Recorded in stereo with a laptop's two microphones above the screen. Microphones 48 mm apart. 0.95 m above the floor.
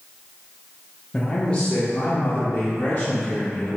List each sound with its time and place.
1.1 s a man speaking: 15° left (ahead or behind), 1.3 m; by 3.8 s 35° left (ahead or behind), 3 m